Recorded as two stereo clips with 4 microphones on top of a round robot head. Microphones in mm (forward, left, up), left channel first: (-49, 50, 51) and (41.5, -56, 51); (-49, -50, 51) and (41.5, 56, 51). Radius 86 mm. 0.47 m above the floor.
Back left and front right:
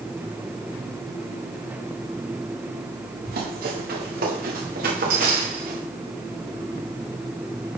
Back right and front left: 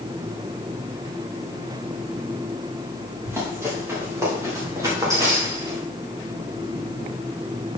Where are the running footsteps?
25° right, 6.5 m; by 5.8 s 15° right, 4.5 m.